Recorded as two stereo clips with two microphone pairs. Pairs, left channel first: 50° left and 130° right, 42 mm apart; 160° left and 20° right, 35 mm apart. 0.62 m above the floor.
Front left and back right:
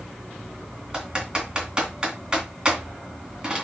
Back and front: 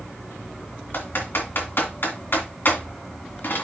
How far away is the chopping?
I don't hear chopping.